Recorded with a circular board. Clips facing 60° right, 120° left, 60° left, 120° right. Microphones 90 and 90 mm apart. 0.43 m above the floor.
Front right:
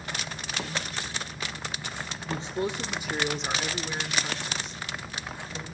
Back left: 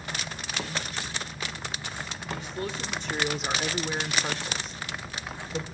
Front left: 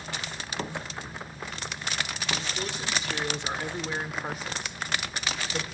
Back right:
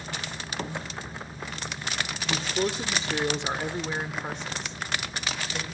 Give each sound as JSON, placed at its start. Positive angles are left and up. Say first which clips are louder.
{"t": 2.3, "sound": "a man speaking", "louder": "front right 4 dB, back right 9 dB", "azimuth_deg": -105, "distance_m": 1.4}